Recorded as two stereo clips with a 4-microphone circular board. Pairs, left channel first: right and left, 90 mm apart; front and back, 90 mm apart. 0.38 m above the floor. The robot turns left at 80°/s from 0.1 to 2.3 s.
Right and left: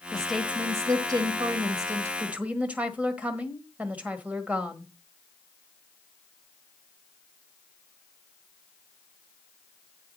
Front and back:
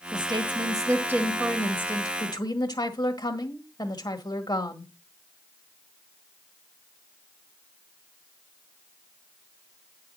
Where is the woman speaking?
165° right, 1.5 m; by 4.9 s 20° left, 1.5 m.